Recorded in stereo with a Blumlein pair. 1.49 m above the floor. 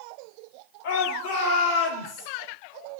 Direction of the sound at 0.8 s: 50° left.